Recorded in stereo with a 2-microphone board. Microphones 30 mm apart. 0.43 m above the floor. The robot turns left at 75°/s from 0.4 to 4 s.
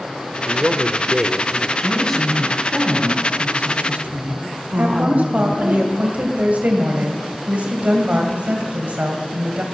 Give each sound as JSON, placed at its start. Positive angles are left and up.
{"t": 0.5, "sound": "a man speaking", "azimuth_deg": -100, "distance_m": 1.0}
{"t": 1.8, "sound": "a woman speaking", "azimuth_deg": 50, "distance_m": 3.5}
{"t": 4.8, "sound": "a woman speaking", "side_deg": -60, "distance_m": 2.0}